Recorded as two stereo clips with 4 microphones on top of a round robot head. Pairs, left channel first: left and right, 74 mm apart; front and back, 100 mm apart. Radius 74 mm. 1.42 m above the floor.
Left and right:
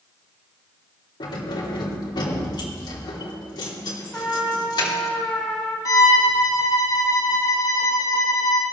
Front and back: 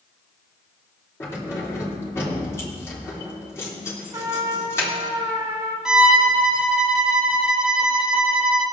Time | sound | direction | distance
1.2 | keys jangling | 65° left | 3 m
4.1 | a trumpet | 165° left | 0.9 m
5.8 | a violin | 100° left | 0.7 m